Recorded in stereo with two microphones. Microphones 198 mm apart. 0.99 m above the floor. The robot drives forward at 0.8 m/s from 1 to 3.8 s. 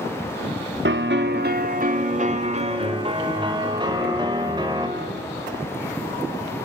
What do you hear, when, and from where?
0.8 s a piano: 70° right (ahead or behind), 1.2 m; by 4.9 s 25° right (ahead or behind), 3 m